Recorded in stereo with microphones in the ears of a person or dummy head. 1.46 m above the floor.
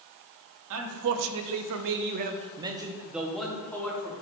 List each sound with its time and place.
0.7 s a man speaking: 85° right, 1.0 m; by 4.1 s 20° left (ahead or behind), 1.4 m